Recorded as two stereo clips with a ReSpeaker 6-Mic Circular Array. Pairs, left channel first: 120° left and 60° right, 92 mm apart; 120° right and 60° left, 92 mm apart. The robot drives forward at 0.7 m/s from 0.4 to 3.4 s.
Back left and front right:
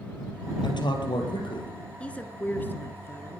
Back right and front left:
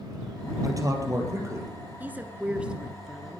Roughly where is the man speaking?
Left.